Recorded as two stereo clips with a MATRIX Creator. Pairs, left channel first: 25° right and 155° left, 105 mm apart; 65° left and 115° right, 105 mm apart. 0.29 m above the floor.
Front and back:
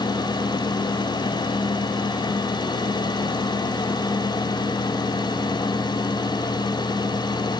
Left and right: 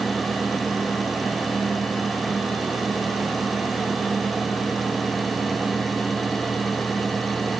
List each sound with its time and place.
Only background noise.